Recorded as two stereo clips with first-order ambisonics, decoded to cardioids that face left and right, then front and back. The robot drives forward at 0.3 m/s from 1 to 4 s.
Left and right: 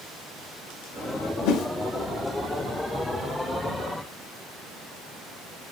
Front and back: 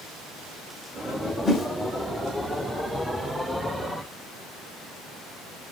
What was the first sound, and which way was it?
A whoosh, 75° left.